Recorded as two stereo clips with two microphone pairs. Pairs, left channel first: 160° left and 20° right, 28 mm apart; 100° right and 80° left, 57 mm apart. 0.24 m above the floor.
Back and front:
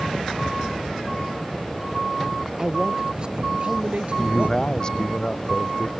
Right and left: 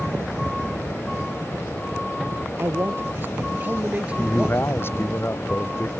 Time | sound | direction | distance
2.6 | a man speaking | 40° left | ?
4.2 | a man speaking | 145° right | ?